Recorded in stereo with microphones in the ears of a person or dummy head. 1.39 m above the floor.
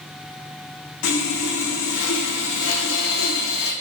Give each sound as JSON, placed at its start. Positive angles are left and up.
{"t": 1.0, "sound": "sawing", "side_deg": 70, "distance_m": 1.2}